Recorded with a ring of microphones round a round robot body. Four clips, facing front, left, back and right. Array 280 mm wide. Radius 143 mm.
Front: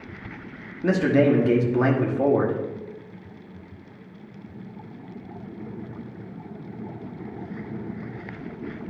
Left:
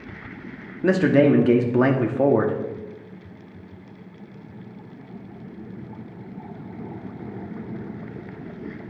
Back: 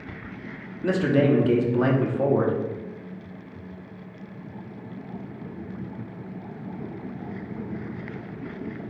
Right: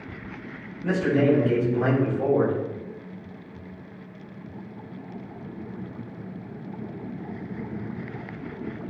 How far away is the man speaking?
About 1.8 m.